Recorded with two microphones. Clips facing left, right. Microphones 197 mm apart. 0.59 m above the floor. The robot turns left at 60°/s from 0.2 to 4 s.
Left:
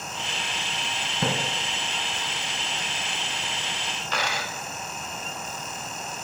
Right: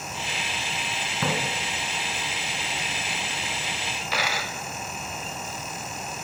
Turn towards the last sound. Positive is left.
turn(degrees=-5)  # may be behind; listen again after turning